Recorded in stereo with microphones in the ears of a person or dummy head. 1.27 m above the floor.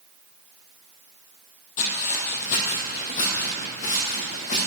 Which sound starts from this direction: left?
Footsteps, at 1.8 s.